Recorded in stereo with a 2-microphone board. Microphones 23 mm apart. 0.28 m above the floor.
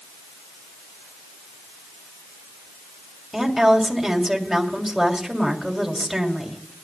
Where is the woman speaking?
10° right (ahead or behind), 1.7 m.